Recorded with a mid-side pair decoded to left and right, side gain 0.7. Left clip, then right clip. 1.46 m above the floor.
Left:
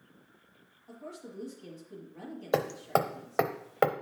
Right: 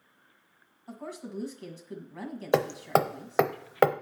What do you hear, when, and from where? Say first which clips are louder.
0.9 s a woman speaking: right 4 dB; 60° right, 1.8 m
2.5 s hammering: right 3 dB; 20° right, 0.6 m